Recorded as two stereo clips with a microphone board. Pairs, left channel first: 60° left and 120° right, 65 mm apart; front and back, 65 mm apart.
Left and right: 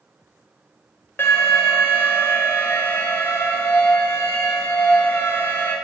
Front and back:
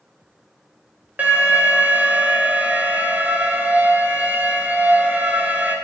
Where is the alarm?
115° left, 2 m.